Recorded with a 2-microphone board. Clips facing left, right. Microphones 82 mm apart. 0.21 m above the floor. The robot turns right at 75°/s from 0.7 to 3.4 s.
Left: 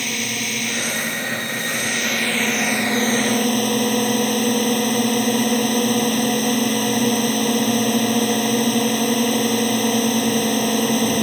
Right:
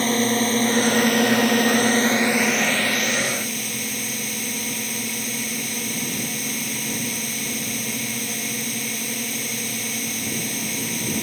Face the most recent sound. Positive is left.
turn(degrees=65)